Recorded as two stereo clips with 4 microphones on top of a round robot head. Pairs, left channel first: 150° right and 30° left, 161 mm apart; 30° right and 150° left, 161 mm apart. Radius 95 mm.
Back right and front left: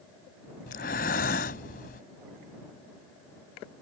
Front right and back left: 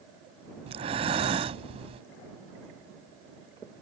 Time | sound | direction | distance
0.7 | breathing | 165° right | ?